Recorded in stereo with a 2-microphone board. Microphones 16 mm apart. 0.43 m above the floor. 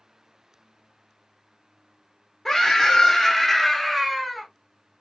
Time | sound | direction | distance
2.5 | a scream | 20° left (ahead or behind) | 1.0 m